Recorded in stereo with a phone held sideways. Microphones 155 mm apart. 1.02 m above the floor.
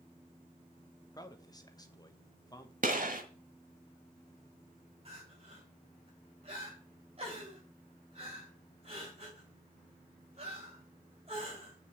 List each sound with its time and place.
1.1 s a man speaking: 25° left (ahead or behind), 1.1 m
2.8 s a gunshot: 60° right (ahead or behind), 1.6 m
5.0 s crying: 40° right (ahead or behind), 3.5 m